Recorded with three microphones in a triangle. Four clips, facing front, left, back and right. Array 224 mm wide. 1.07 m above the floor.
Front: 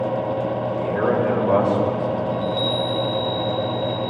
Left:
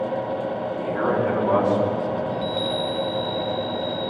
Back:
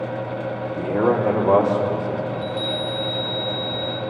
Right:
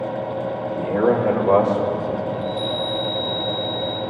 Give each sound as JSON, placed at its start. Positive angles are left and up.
{"t": 0.8, "sound": "a man speaking", "azimuth_deg": -155, "distance_m": 2.0}
{"t": 2.3, "sound": "a chime", "azimuth_deg": 115, "distance_m": 4.0}